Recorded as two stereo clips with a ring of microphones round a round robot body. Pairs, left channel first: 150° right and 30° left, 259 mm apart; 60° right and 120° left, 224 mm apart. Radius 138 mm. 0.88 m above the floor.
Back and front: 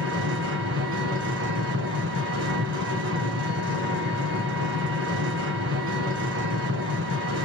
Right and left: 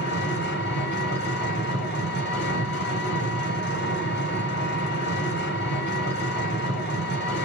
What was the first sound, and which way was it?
An engine running, 15° right.